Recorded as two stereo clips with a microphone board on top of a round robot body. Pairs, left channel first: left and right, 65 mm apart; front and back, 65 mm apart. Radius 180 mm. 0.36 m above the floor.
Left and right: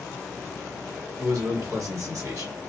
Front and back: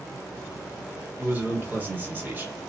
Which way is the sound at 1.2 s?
120° right.